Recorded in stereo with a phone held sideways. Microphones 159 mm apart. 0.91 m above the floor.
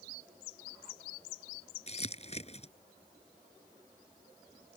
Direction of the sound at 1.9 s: 45° left (ahead or behind).